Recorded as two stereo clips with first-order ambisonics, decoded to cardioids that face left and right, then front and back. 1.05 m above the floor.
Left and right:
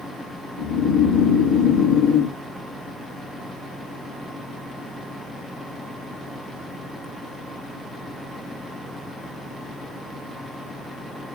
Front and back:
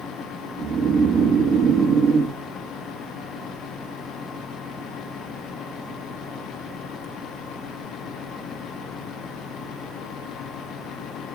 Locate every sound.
0.6 s snoring: 120° left, 3 m